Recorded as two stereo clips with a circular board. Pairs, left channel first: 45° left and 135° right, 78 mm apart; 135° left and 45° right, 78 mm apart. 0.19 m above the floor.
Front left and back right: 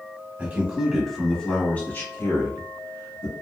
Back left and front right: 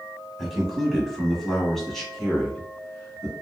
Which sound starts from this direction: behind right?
A man speaking, at 0.4 s.